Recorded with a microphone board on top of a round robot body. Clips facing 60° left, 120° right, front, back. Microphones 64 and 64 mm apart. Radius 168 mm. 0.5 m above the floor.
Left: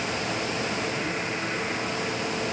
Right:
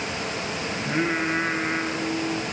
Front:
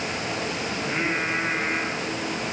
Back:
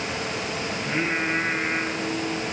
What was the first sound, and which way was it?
Singing, 75° right.